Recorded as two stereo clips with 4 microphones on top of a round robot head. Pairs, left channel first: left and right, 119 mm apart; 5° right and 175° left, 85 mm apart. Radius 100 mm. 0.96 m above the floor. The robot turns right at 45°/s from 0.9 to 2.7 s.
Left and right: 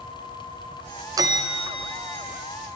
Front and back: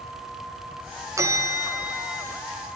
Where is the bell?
145° right, 0.7 m; by 2.2 s 95° right, 0.7 m.